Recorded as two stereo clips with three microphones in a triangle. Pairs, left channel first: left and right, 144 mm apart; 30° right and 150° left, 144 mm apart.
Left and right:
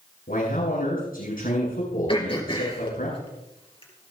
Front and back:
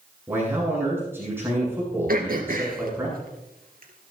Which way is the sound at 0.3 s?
75° left.